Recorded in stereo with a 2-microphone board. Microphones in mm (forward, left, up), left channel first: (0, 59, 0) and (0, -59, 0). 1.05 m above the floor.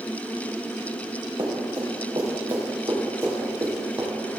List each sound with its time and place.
1.4 s running footsteps: 45° right (ahead or behind), 3.5 m; by 4.1 s 20° right (ahead or behind), 3.5 m